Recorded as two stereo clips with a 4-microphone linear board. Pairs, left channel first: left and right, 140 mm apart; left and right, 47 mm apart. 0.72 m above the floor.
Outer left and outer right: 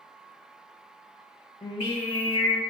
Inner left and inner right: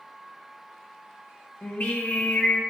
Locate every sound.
1.6 s singing: 40° left (ahead or behind), 1.5 m